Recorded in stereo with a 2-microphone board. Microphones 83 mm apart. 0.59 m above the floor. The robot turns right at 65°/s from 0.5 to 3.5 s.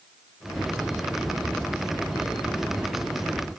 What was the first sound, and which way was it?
Only background noise.